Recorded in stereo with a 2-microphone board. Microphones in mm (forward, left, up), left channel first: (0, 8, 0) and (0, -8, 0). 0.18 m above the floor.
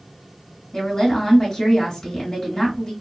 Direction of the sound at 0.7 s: 40° left (ahead or behind).